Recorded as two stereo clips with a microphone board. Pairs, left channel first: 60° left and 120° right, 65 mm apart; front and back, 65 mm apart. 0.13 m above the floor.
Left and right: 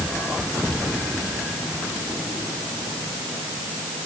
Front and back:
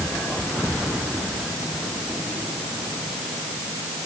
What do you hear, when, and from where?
Only background noise.